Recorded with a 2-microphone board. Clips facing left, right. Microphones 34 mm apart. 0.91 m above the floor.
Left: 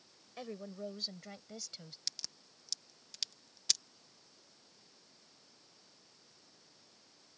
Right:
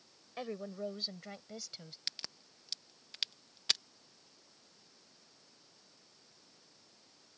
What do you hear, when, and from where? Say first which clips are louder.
0.4 s a woman speaking: right 3 dB; 20° right (ahead or behind); by 2.0 s 5° right (ahead or behind)
2.1 s a crack: right 3 dB; 30° right (ahead or behind)